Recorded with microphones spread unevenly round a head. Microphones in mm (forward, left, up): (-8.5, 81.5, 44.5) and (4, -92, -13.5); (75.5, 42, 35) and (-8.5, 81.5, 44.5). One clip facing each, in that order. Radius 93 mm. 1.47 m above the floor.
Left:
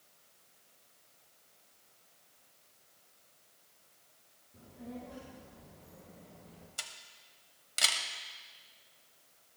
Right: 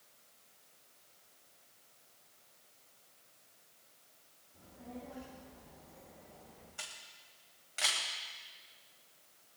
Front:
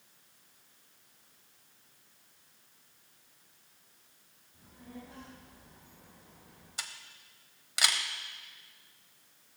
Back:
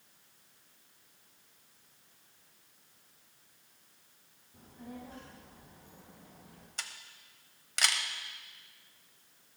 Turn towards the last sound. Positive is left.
turn(degrees=55)